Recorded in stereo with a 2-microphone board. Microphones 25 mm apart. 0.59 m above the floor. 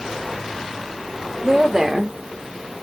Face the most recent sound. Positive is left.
turn(degrees=15)  # may be behind; listen again after turning